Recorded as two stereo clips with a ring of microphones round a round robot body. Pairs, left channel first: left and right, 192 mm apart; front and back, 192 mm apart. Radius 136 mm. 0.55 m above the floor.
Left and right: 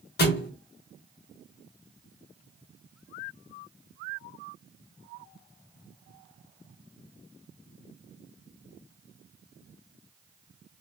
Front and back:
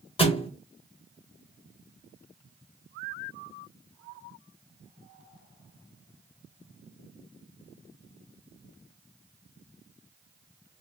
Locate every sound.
0.2 s a thud: 60° left, 1.2 m